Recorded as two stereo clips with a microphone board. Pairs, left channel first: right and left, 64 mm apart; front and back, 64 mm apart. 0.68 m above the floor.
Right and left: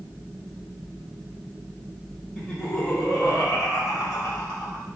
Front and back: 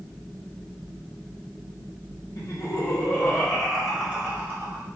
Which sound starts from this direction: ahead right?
Laughter, at 2.4 s.